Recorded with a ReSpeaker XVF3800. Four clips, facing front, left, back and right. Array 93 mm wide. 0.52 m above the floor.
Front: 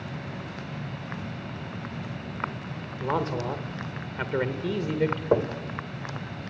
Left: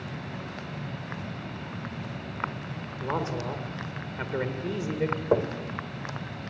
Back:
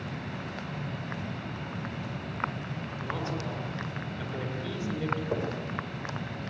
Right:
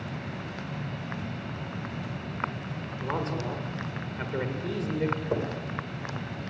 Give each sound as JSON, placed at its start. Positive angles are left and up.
{"t": 3.0, "sound": "a man speaking", "azimuth_deg": 15, "distance_m": 2.0}
{"t": 5.3, "sound": "knocking", "azimuth_deg": 40, "distance_m": 1.6}